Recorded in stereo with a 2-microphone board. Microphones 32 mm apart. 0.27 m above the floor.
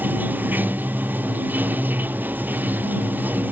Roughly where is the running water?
Right.